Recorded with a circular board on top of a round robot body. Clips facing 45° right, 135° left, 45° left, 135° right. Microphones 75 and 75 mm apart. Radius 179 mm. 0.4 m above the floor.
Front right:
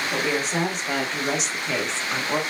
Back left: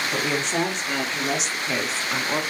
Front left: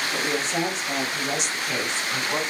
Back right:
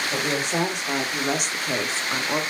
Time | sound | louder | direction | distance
0.1 | a woman speaking | front right 1 dB, back right 1 dB | 130° right | 2 m